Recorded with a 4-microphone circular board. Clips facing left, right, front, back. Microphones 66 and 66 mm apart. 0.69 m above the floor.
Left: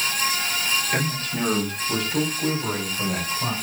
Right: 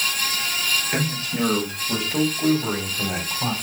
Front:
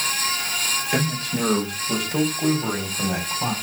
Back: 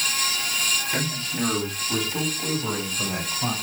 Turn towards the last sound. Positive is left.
turn(degrees=-25)